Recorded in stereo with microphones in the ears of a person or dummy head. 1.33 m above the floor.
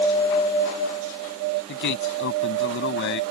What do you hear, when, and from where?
1.7 s a man speaking: 60° left (ahead or behind); by 3.2 s 55° left (ahead or behind)